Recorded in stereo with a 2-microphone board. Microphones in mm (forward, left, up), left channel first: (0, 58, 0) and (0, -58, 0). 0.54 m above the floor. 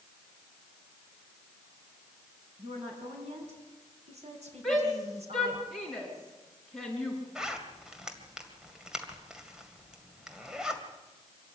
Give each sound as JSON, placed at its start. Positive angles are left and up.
{"t": 2.6, "sound": "a woman speaking", "side_deg": -70, "distance_m": 6.5}
{"t": 4.6, "sound": "a shout", "side_deg": 0, "distance_m": 6.0}
{"t": 7.3, "sound": "a zipper", "side_deg": -5, "distance_m": 2.0}